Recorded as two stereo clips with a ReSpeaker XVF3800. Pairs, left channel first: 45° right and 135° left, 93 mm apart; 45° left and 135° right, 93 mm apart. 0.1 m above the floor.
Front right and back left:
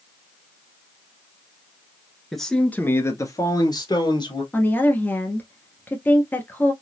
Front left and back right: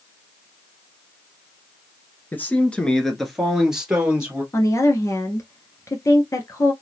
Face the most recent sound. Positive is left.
turn(degrees=10)